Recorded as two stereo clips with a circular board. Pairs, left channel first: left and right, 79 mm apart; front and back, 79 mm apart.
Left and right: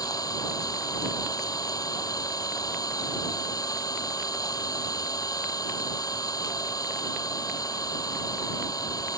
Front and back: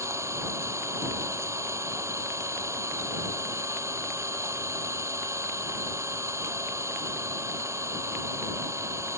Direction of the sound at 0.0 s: 125° left.